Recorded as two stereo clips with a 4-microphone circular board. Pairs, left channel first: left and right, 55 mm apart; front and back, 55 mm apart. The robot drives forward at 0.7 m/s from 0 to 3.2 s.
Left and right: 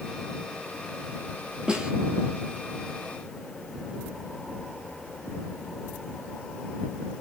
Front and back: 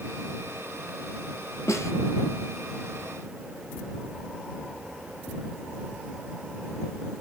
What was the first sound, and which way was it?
A snare drum, 15° right.